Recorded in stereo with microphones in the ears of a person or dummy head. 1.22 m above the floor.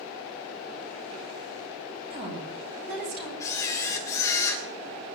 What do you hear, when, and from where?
2.1 s a woman speaking: 55° right (ahead or behind), 7.5 m
3.4 s a camera shutter: 20° left (ahead or behind), 3 m